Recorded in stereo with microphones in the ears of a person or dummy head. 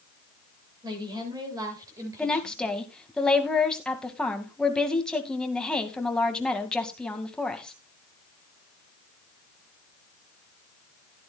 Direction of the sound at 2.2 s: Centre (ahead or behind).